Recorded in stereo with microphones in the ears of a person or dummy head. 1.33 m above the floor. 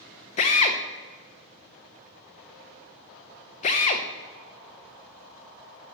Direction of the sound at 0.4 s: 30° left (ahead or behind).